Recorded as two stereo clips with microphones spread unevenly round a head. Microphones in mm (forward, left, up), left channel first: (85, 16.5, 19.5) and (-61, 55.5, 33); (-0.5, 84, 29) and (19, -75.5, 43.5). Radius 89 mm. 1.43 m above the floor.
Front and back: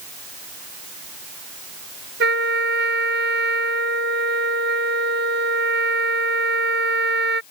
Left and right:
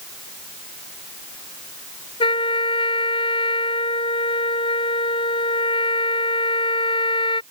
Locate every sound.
2.2 s a trumpet: 160° left